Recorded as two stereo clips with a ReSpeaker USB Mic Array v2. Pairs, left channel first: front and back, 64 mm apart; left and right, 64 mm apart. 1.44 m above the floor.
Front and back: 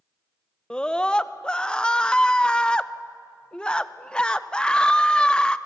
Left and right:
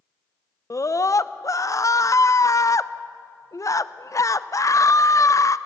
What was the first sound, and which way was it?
A scream, 75° left.